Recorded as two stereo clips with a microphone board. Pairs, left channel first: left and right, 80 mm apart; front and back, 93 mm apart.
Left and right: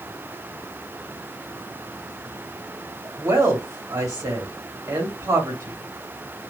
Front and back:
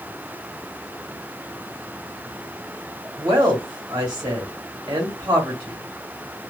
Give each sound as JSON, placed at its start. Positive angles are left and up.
{"t": 3.2, "sound": "a woman speaking", "azimuth_deg": -130, "distance_m": 1.5}